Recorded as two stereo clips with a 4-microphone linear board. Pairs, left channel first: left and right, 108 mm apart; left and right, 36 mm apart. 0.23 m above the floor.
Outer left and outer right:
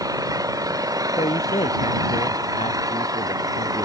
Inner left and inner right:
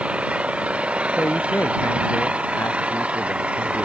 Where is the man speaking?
80° left.